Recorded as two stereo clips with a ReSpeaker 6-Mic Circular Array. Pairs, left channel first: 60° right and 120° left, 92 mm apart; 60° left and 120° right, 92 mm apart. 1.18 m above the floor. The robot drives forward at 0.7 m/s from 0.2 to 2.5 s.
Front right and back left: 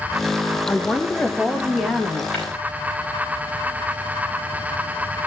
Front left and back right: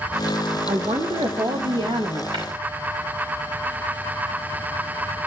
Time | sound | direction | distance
0.7 | a woman speaking | 130° right | 1.0 m
2.3 | tapping | 140° right | 5 m